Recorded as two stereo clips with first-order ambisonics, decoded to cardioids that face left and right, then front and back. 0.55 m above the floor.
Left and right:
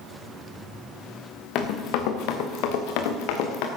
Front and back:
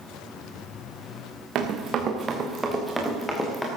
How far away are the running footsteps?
About 3 m.